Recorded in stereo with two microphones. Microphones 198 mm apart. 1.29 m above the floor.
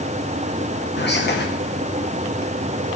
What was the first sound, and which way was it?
Whispering, 60° left (ahead or behind).